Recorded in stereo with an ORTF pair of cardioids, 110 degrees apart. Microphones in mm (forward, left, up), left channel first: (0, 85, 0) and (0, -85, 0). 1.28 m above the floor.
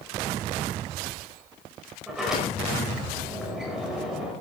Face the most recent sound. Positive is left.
turn(degrees=-5)